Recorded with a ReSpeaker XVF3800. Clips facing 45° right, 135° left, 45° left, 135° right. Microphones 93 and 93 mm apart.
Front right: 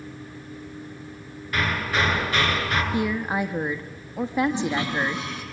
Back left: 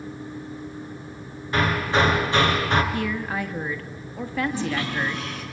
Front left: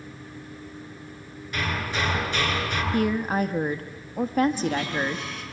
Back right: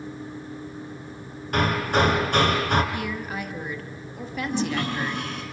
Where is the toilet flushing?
115° right, 6 m.